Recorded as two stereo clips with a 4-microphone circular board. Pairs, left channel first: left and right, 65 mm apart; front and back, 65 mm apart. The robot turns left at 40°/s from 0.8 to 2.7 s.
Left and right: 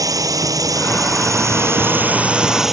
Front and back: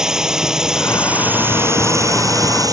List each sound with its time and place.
0.0 s a drone: 100° right; by 2.7 s 175° right